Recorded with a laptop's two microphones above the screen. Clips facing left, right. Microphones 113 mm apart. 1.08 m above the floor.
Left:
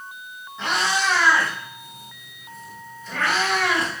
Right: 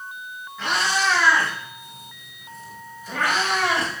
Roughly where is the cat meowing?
Left.